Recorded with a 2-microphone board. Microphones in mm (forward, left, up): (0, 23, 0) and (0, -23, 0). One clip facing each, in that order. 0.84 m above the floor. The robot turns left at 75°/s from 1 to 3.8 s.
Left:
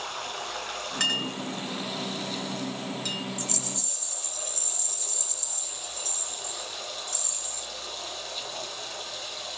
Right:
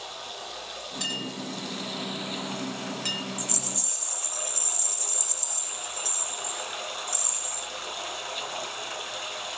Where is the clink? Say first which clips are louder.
Left 5 dB; 75° left (ahead or behind), 3.5 m; by 3.2 s 60° right (ahead or behind), 3.5 m.